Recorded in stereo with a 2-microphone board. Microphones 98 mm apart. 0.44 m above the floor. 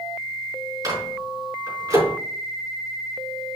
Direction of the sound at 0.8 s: 40° right (ahead or behind).